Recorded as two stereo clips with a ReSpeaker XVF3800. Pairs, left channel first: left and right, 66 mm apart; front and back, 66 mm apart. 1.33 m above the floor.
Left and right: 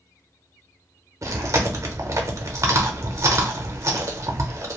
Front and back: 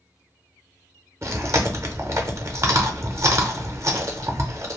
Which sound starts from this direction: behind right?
Chewing, at 1.2 s.